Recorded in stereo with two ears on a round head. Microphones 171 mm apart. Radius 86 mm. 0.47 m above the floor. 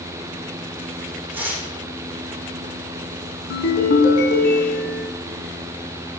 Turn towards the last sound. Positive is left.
turn(degrees=60)  # may be behind; listen again after turning